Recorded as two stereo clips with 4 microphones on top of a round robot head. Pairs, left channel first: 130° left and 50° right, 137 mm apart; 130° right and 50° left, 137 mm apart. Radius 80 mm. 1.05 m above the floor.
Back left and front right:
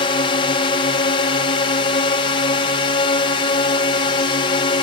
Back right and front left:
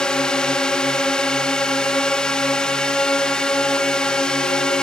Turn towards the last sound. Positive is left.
turn(degrees=150)